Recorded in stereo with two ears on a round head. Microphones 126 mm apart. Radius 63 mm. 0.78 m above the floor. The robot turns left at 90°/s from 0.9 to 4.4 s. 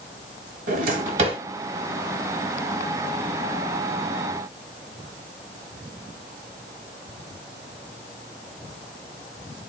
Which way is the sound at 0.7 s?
65° right (ahead or behind).